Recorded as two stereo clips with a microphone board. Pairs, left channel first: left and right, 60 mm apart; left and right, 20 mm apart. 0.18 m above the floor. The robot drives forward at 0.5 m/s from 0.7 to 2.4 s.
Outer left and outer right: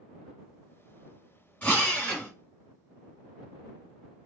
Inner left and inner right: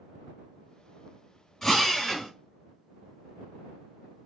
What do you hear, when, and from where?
1.6 s a drill: 20° left (ahead or behind), 1.5 m